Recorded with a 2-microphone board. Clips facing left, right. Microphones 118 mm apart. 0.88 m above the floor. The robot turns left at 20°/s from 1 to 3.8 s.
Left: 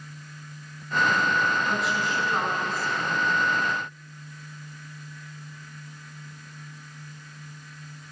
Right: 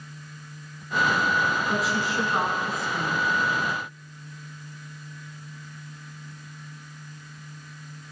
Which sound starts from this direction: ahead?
A woman speaking, at 1.7 s.